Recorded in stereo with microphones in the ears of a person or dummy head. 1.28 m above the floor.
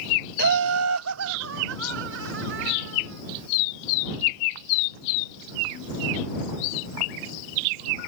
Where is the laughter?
50° right (ahead or behind); by 3.2 s 60° right (ahead or behind).